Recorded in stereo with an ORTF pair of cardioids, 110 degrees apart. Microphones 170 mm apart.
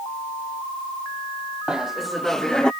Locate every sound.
1.7 s laughter: 5° right; by 2.7 s 5° left